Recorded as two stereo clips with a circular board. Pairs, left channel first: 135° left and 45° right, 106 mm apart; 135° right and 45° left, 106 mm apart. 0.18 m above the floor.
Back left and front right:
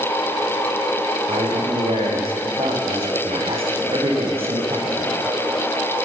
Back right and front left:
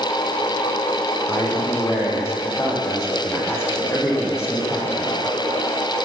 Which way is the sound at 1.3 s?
70° right.